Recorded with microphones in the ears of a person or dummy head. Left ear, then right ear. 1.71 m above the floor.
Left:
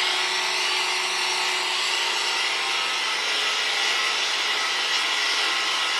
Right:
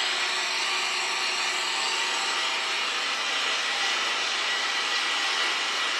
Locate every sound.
0.0 s an engine running: 55° left (ahead or behind), 1.5 m